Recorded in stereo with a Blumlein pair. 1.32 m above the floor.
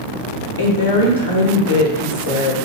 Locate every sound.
0.6 s a woman speaking: 70° left, 0.8 m